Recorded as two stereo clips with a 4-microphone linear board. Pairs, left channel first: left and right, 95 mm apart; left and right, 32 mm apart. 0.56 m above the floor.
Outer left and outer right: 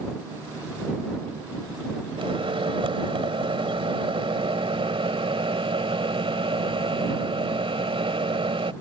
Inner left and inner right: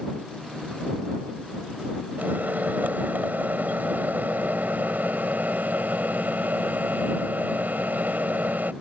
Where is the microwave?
75° right (ahead or behind).